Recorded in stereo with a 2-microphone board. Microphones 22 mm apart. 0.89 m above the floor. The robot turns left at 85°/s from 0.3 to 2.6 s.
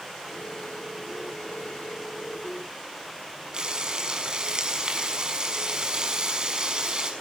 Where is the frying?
35° right (ahead or behind), 6 m.